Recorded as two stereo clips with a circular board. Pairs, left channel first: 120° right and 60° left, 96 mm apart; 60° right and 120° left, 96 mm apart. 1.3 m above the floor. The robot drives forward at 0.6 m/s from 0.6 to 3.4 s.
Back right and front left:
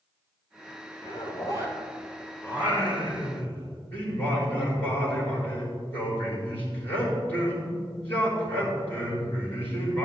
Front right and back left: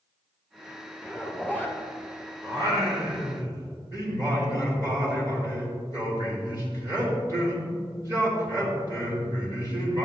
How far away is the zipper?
About 3.5 m.